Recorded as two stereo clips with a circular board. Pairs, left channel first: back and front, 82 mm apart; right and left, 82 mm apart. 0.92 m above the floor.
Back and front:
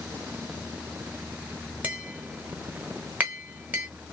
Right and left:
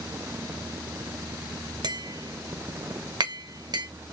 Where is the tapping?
70° left, 1.0 m.